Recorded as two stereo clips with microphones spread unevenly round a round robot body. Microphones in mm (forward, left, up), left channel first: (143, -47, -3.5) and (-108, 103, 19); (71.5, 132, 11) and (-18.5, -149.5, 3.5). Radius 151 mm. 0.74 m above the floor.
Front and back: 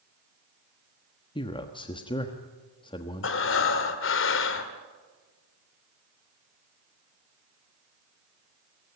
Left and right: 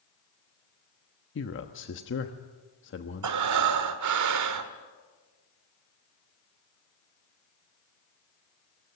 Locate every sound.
1.4 s a man speaking: 35° left, 1.3 m
3.2 s breathing: 80° right, 1.6 m